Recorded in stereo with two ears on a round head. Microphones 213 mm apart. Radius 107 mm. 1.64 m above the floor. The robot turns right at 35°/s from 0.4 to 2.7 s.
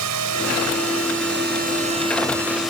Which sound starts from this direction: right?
A drone, at 0.0 s.